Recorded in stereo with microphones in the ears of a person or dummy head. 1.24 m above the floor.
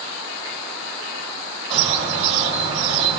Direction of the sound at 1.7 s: 40° right (ahead or behind).